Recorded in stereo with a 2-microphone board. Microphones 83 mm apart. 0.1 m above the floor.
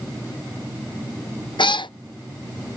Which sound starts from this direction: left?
A cat meowing, at 1.6 s.